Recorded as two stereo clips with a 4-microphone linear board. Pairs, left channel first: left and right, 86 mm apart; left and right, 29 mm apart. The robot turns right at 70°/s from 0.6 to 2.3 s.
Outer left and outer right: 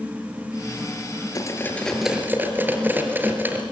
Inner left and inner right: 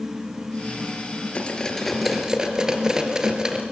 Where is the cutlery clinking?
45° left (ahead or behind), 3.5 m; by 3.6 s 20° right (ahead or behind), 3.5 m.